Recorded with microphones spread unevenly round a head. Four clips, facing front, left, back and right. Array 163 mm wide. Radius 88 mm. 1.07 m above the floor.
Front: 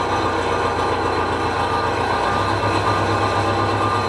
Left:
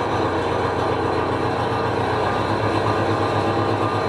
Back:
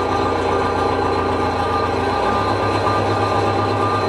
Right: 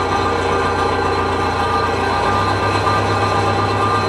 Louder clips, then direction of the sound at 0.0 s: Right 4 dB, back 2 dB; 150° right.